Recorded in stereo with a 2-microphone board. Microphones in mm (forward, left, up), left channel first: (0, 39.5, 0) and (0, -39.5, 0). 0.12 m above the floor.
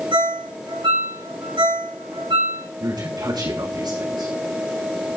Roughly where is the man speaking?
Right.